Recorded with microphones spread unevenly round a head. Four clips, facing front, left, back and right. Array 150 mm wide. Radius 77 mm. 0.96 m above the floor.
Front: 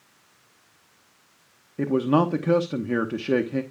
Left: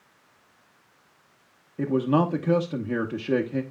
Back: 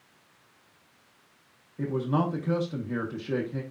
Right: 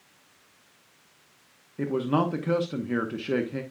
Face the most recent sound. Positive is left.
turn(degrees=15)